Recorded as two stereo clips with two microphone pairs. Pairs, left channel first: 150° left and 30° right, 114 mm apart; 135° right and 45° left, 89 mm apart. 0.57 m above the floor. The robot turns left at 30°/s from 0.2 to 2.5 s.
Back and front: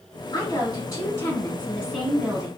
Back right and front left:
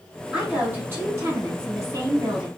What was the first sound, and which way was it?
A woman speaking, 120° left.